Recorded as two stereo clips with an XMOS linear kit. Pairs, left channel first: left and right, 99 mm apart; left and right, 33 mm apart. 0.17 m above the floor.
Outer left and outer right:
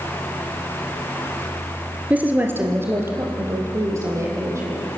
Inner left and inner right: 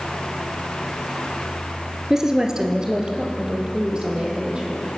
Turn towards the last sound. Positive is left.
turn(degrees=-30)  # may be behind; listen again after turning